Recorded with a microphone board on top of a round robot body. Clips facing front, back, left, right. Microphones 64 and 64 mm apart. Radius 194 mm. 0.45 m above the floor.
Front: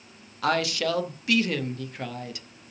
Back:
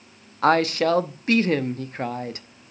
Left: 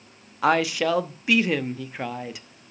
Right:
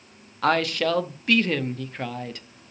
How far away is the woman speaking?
About 1.1 m.